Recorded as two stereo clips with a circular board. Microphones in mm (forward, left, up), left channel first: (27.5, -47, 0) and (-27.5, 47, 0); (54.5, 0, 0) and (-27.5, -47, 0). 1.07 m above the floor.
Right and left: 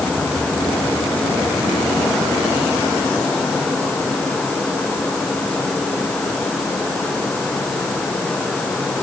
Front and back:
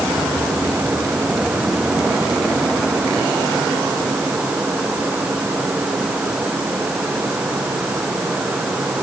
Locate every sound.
Only background noise.